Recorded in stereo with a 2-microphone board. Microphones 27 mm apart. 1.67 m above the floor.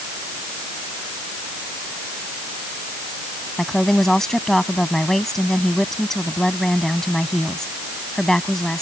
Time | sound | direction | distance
3.6 | a woman speaking | 15° left (ahead or behind) | ?